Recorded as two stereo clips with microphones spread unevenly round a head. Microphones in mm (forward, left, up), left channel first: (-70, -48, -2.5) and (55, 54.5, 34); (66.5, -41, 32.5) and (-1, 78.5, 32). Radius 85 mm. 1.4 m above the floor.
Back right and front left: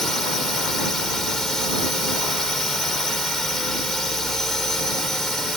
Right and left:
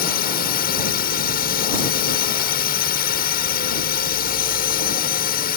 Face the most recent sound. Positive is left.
turn(degrees=-50)